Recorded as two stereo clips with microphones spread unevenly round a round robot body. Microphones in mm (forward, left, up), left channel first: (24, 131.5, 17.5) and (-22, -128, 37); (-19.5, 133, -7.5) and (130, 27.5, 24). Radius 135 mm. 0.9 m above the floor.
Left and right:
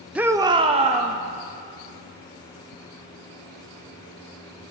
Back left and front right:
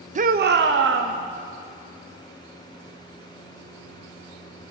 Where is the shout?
10° right, 0.6 m; by 1.2 s 35° right, 1.2 m.